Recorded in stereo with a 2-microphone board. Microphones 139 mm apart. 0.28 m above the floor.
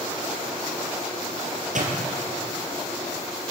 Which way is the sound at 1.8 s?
65° right (ahead or behind).